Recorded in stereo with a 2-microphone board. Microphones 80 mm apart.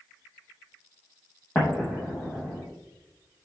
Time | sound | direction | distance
1.6 | an explosion | 25° left (ahead or behind) | 4 m